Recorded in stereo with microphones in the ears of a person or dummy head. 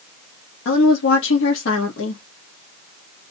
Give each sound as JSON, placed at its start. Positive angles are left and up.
{"t": 0.7, "sound": "a woman speaking", "side_deg": 70, "distance_m": 0.9}